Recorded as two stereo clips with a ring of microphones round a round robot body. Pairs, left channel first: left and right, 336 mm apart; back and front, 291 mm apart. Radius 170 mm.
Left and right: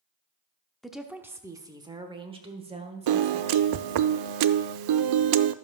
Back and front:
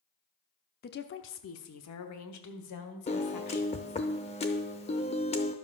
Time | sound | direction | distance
0.8 | a woman speaking | straight behind | 0.7 m
3.1 | a piano | 110° right | 0.6 m